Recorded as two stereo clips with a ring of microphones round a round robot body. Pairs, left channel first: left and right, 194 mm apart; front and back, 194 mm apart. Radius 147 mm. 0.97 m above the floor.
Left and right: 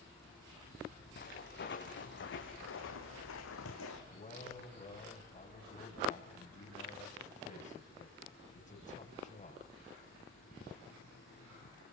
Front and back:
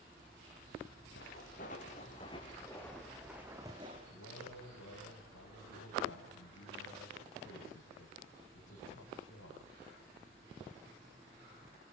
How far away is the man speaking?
About 6.5 m.